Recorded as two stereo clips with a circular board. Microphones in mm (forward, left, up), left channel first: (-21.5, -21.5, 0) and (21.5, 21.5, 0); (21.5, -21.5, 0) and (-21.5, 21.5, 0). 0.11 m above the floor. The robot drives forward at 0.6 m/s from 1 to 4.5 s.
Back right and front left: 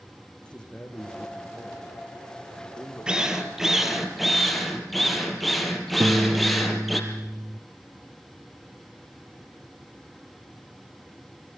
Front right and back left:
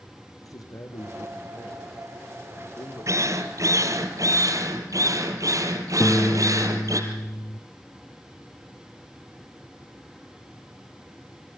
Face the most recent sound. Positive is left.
turn(degrees=0)